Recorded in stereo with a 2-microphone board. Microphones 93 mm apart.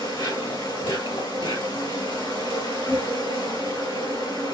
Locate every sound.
0.0 s an insect: 65° left (ahead or behind), 2.5 m